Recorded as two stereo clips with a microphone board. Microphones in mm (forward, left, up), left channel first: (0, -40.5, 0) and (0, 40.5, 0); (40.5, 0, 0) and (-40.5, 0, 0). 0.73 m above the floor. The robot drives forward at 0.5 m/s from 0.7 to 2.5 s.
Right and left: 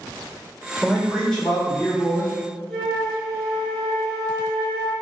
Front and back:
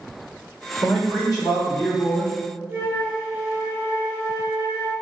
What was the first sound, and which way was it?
A man speaking, 10° right.